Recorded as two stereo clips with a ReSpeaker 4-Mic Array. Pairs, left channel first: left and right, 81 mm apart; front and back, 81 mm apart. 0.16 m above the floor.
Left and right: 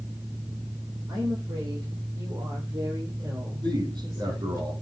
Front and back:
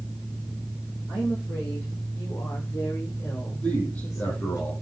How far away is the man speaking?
About 7 m.